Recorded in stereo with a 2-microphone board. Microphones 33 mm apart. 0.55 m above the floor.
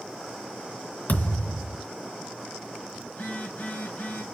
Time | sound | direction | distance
1.1 | a thud | 80° left | 3 m
3.1 | a phone buzzing | 55° left (ahead or behind) | 3 m